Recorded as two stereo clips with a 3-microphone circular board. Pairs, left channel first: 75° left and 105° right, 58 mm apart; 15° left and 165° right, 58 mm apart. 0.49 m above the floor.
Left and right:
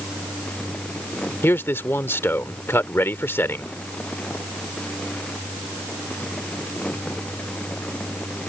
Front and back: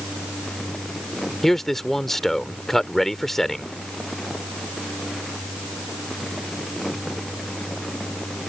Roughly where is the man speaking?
Left.